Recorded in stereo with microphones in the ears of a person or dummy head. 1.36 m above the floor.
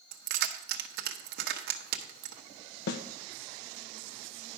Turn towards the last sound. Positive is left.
turn(degrees=65)  # may be behind; listen again after turning